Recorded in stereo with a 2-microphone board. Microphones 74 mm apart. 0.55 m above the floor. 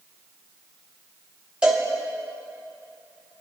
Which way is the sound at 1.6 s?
10° right (ahead or behind).